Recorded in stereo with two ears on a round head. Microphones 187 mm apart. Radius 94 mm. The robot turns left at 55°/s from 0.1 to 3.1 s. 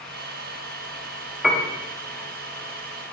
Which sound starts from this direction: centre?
A piano, at 1.4 s.